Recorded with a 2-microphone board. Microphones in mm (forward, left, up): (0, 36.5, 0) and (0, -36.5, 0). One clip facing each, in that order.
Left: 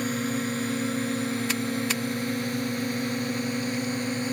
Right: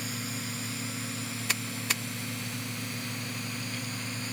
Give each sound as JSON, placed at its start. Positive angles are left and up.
{"t": 0.0, "sound": "a drone", "side_deg": 50}